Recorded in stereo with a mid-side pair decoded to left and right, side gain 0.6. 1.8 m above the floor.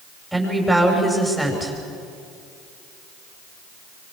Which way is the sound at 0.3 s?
5° right.